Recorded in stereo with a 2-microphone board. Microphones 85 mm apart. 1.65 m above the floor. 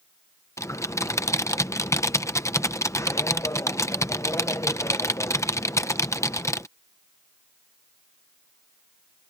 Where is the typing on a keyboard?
35° left (ahead or behind).